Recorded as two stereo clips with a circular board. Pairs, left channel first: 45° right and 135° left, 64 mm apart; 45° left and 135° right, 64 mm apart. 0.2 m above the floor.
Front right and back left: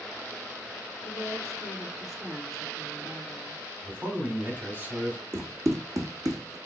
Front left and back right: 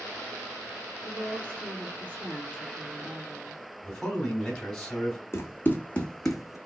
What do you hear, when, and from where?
1.0 s a woman speaking: 165° left, 2.5 m
3.8 s a man speaking: 120° left, 1.9 m
5.3 s running footsteps: 90° left, 0.9 m; by 6.6 s 140° left, 0.8 m